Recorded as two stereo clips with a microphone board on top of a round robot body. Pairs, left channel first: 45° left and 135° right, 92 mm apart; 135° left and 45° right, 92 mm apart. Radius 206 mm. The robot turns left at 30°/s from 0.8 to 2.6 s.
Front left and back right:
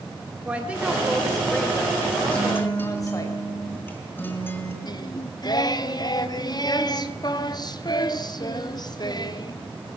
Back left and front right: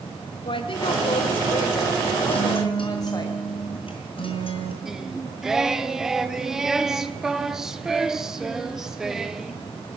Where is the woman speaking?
150° left, 2.5 m; by 3.3 s 95° left, 2.5 m.